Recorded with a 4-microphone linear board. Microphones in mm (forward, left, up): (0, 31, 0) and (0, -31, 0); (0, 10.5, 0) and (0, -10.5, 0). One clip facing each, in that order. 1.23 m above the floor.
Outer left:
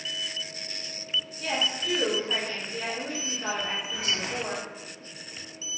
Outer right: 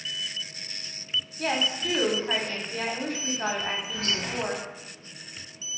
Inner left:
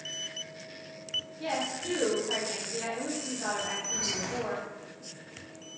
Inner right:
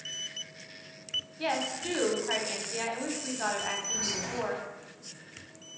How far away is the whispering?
About 0.7 m.